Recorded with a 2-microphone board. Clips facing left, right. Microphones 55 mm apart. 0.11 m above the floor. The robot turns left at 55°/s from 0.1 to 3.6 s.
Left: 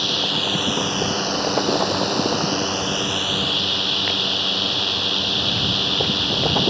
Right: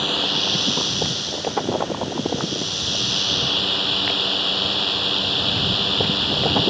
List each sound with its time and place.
0.0 s a drone: 170° right; by 6.7 s straight ahead